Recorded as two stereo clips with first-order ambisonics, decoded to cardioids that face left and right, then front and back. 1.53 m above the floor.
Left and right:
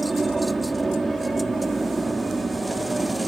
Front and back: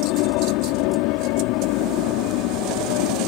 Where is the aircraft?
5° right.